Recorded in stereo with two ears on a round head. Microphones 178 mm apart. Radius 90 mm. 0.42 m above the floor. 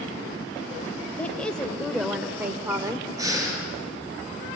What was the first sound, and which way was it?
A woman speaking, 10° left (ahead or behind).